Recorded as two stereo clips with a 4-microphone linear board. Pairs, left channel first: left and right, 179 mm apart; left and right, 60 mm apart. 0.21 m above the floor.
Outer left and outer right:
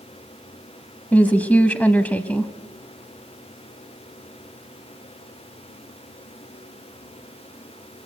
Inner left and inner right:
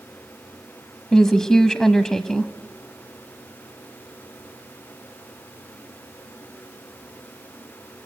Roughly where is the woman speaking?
Centre.